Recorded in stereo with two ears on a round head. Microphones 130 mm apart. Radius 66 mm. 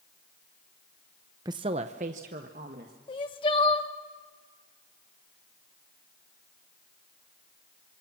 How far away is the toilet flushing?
No toilet flushing in this recording.